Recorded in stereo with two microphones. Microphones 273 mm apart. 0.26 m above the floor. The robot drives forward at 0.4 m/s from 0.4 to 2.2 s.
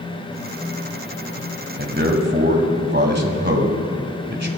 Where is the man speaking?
40° right (ahead or behind), 1.6 m.